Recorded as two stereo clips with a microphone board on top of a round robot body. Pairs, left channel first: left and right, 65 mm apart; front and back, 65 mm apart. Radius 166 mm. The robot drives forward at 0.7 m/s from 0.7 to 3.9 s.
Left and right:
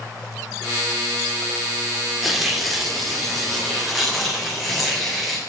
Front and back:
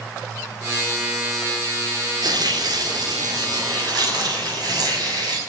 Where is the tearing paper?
175° right, 2 m; by 5.4 s straight behind, 3.5 m.